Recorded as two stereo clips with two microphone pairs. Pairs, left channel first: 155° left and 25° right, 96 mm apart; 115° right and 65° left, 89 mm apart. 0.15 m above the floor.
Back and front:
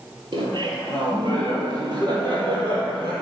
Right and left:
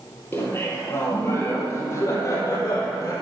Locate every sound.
0.3 s laughter: 55° right, 3.5 m; by 3.1 s 65° right, 4.5 m